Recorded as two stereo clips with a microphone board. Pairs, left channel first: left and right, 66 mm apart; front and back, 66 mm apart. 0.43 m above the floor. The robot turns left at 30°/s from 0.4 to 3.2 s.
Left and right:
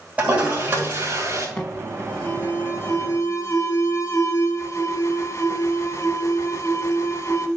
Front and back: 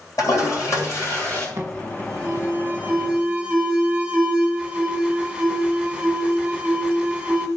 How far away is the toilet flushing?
About 3 m.